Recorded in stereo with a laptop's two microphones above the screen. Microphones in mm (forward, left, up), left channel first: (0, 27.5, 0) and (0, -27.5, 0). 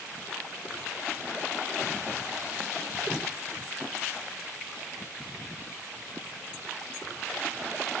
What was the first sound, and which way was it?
Only background noise.